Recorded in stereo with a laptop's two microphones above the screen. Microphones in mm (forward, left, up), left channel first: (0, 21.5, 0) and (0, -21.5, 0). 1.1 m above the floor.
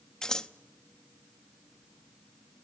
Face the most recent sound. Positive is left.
turn(degrees=15)  # may be behind; listen again after turning